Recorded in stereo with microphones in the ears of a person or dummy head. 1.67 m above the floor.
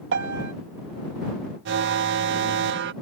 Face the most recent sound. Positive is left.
turn(degrees=-60)  # may be behind; listen again after turning